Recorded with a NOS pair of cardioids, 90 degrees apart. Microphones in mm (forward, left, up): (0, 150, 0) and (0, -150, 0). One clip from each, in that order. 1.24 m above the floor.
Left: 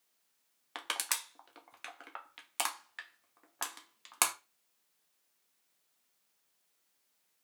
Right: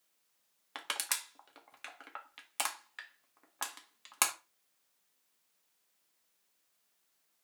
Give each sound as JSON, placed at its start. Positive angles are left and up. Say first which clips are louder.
{"t": 0.8, "sound": "crushing", "louder": "left 1 dB", "azimuth_deg": 5, "distance_m": 1.0}